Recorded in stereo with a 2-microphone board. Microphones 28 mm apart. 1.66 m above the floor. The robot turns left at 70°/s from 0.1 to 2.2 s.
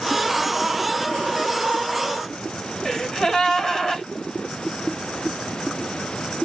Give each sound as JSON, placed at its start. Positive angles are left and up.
{"t": 2.9, "sound": "a gasp", "side_deg": 20, "distance_m": 2.0}